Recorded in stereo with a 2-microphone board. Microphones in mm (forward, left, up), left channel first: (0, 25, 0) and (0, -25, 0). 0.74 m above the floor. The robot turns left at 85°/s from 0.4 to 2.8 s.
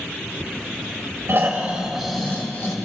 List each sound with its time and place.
1.3 s snoring: 115° right, 2.5 m; by 2.8 s 120° left, 2.5 m